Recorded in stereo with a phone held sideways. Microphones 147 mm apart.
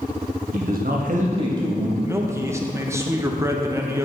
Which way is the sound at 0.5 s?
65° right (ahead or behind).